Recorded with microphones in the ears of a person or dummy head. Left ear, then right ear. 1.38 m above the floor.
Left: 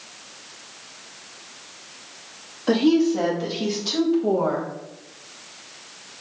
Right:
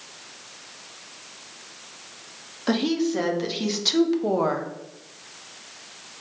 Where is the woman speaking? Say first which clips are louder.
Left 5 dB; 30° right (ahead or behind), 2 m; by 4.7 s 65° right (ahead or behind), 1.0 m.